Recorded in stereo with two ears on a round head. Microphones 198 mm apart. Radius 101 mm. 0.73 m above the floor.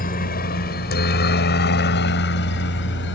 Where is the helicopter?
40° left (ahead or behind); by 3.2 s 55° left (ahead or behind).